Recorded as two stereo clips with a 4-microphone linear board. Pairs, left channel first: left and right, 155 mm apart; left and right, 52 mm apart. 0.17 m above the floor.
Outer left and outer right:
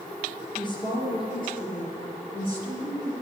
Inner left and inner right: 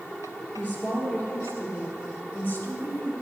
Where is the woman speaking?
30° left (ahead or behind), 3.5 m; by 3.1 s 40° left (ahead or behind), 2 m.